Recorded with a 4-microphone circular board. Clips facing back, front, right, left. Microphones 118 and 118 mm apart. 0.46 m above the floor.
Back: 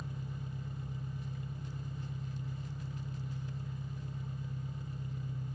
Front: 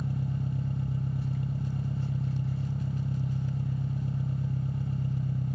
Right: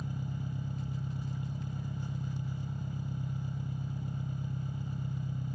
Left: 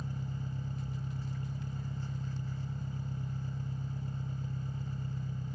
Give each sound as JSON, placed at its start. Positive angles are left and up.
{"t": 0.0, "sound": "an engine running", "azimuth_deg": -15, "distance_m": 0.8}